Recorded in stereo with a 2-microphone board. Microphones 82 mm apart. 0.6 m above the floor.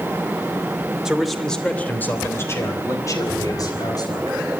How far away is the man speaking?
About 2.5 m.